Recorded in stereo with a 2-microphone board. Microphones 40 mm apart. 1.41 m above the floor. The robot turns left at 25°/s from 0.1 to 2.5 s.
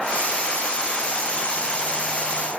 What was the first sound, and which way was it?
Only background noise.